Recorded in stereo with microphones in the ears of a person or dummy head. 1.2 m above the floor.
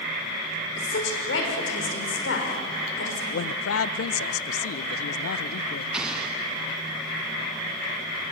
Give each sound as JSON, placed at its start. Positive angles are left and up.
{"t": 0.8, "sound": "a woman speaking", "side_deg": 70, "distance_m": 5.0}
{"t": 3.3, "sound": "a man speaking", "side_deg": 85, "distance_m": 0.6}
{"t": 5.9, "sound": "an explosion", "side_deg": -10, "distance_m": 3.0}